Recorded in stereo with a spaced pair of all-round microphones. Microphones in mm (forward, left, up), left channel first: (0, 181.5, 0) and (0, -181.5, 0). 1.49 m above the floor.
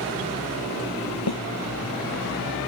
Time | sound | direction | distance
1.3 | a snare drum | 85° left | ?